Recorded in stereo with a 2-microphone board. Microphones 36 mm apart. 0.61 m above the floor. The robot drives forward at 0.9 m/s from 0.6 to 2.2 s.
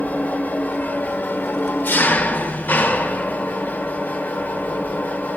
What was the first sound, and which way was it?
An engine running, 50° left (ahead or behind).